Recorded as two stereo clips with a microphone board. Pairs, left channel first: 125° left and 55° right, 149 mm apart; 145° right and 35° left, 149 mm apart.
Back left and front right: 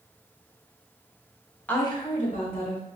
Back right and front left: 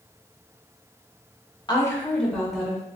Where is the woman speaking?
165° right, 0.9 m; by 2.9 s 120° left, 2 m.